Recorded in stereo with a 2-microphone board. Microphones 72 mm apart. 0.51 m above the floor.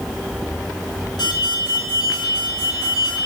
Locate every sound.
1.2 s an alarm: 80° left, 4.5 m